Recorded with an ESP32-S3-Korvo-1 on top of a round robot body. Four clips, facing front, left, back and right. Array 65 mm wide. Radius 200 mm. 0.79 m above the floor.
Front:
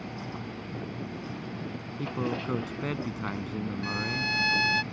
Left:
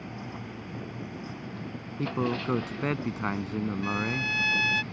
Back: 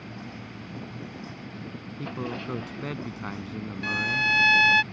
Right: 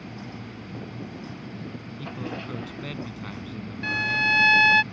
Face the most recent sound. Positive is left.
turn(degrees=-110)